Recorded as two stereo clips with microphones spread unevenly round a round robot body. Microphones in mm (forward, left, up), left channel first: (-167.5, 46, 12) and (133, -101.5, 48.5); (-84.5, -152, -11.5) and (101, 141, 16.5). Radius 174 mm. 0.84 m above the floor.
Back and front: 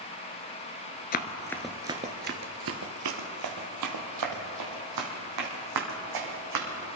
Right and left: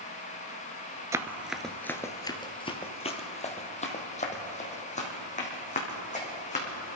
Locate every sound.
1.1 s running footsteps: 115° left, 0.8 m; by 7.0 s 50° right, 4 m